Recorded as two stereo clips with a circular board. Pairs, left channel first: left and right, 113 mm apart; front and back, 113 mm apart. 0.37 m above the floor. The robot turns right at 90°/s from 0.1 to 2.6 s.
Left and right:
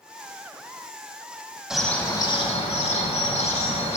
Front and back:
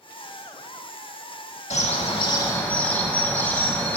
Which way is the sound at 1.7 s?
5° right.